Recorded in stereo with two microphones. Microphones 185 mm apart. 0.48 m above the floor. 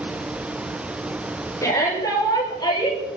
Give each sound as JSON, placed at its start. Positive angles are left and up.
{"t": 1.6, "sound": "a shout", "side_deg": 15, "distance_m": 9.0}